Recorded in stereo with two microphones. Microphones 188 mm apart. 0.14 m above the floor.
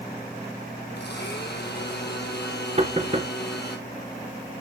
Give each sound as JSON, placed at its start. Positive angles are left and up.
{"t": 1.0, "sound": "a blender", "side_deg": 65, "distance_m": 1.4}
{"t": 2.8, "sound": "knocking", "side_deg": -35, "distance_m": 1.2}